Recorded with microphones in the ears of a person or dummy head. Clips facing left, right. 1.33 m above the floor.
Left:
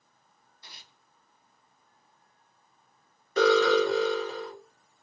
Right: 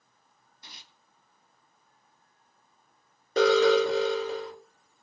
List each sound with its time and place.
0.6 s tearing paper: 20° right (ahead or behind), 2.5 m
3.4 s an alarm: 30° right (ahead or behind), 1.9 m